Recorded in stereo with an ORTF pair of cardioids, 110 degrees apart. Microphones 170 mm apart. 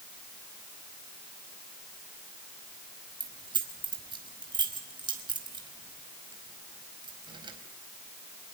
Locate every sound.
3.2 s keys jangling: 25° right, 4.5 m